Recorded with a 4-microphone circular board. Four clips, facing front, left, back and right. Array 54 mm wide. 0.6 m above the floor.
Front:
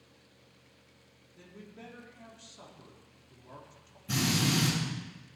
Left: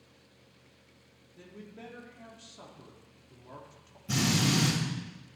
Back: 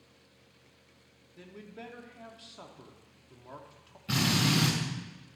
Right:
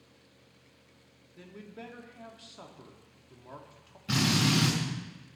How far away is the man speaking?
About 1.5 m.